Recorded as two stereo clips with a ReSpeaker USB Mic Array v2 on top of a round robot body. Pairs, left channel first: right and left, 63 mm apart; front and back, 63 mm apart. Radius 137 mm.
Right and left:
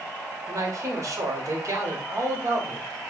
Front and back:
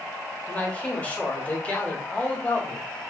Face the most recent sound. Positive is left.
turn(degrees=70)